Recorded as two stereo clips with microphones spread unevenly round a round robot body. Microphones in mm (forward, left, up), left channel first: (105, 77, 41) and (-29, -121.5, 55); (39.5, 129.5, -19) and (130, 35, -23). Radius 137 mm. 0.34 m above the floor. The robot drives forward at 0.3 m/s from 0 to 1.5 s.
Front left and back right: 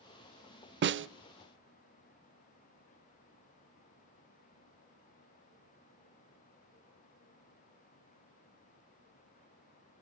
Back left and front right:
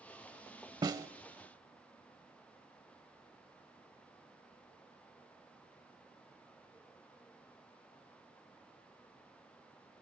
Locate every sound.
0.8 s a snare drum: 100° right, 0.6 m; by 1.1 s 110° right, 0.6 m